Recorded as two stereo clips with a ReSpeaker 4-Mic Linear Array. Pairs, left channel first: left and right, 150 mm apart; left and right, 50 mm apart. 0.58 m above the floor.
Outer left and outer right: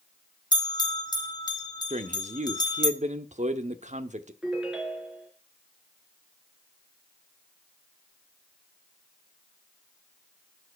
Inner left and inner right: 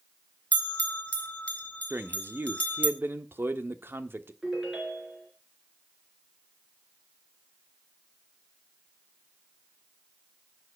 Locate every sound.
0.5 s a bell: 25° left (ahead or behind), 1.3 m
1.9 s a man speaking: 50° right (ahead or behind), 1.1 m
4.4 s a ringtone: 5° right (ahead or behind), 4 m